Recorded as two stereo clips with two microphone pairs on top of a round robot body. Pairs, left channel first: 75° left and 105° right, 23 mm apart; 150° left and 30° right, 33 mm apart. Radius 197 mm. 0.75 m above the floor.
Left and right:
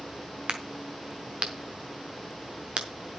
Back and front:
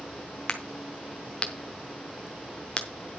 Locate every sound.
0.5 s a crack: 145° right, 0.6 m